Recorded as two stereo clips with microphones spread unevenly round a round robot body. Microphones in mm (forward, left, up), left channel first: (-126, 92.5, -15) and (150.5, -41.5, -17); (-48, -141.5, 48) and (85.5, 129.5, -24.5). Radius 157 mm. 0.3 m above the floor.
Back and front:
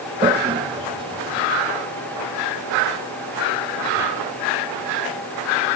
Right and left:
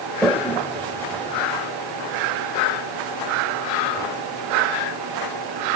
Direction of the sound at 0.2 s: Straight ahead.